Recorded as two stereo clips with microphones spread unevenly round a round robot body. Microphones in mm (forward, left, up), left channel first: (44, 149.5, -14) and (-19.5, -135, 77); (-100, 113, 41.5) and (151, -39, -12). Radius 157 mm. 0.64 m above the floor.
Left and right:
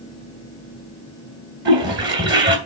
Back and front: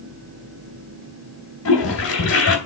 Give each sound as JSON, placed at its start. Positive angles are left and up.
{"t": 1.6, "sound": "a toilet flushing", "azimuth_deg": -160, "distance_m": 2.0}